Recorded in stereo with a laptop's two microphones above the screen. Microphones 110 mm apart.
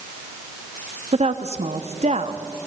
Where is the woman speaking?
80° right, 1.3 m.